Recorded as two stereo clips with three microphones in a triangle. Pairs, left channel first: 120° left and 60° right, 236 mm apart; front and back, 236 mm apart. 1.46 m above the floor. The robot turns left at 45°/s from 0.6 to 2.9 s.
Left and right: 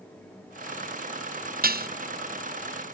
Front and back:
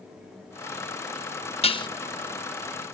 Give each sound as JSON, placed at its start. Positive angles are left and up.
{"t": 1.6, "sound": "dishes clattering", "azimuth_deg": -50}